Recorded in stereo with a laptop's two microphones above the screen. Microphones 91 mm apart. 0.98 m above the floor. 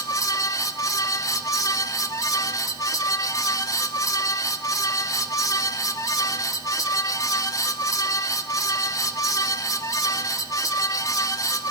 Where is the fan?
40° left (ahead or behind), 2 m.